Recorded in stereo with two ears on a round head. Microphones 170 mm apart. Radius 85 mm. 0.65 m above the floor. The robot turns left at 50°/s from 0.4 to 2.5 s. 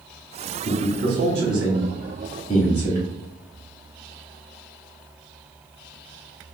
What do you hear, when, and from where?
0.7 s a man speaking: 40° right (ahead or behind), 1.0 m; by 3.0 s 10° left (ahead or behind), 1.0 m